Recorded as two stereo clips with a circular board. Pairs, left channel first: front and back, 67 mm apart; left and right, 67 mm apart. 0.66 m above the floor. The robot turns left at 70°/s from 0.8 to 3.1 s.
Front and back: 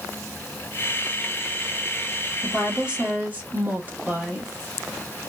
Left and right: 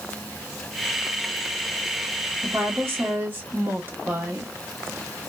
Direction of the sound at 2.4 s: 85° right.